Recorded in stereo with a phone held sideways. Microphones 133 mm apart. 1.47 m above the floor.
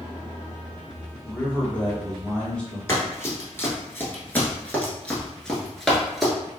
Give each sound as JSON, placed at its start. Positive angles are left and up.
{"t": 1.2, "sound": "a man speaking", "side_deg": 10, "distance_m": 1.9}
{"t": 2.9, "sound": "running footsteps", "side_deg": 20, "distance_m": 1.8}